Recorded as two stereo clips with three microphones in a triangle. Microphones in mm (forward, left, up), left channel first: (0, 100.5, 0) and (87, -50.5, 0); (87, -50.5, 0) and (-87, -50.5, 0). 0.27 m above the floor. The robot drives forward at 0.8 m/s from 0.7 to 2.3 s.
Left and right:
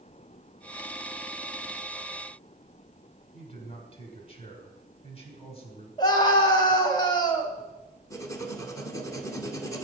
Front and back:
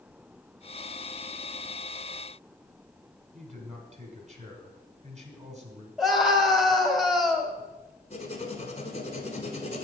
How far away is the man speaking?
About 1.5 m.